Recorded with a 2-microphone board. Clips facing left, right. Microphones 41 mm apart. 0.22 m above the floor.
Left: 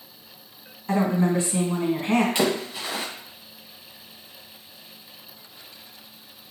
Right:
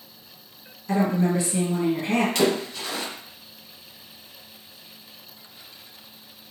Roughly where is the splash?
Centre.